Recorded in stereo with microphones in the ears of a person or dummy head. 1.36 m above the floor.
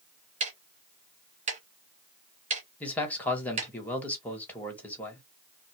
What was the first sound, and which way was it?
Ticking, 35° right (ahead or behind).